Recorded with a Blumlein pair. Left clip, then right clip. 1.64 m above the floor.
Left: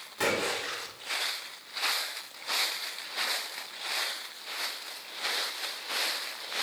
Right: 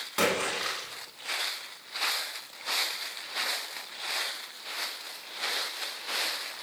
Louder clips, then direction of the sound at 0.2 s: Right 2 dB; 50° right.